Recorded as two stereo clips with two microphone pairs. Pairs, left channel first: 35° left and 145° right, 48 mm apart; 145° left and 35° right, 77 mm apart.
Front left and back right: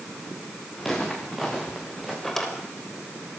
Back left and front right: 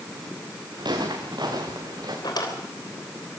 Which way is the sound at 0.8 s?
55° right.